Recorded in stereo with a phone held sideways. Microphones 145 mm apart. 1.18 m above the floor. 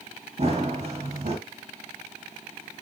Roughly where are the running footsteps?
Right.